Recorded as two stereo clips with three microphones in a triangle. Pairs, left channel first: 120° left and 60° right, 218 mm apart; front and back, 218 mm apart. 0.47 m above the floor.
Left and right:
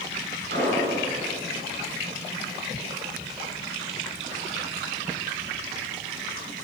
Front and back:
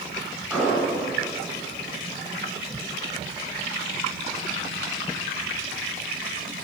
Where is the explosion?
95° right, 4.5 m.